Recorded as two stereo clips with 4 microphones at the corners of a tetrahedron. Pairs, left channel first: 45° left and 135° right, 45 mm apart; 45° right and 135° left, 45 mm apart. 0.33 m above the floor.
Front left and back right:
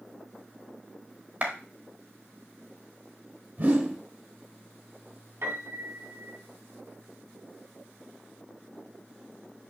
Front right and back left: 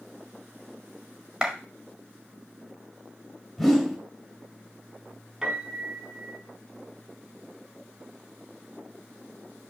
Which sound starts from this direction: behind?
A clap, at 1.4 s.